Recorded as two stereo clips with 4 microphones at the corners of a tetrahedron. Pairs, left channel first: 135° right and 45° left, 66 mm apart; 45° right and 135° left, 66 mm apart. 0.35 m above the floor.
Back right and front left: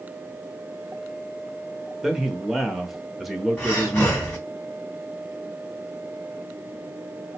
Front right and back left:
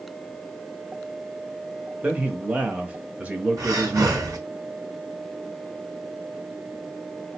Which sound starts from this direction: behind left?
A man speaking, at 2.0 s.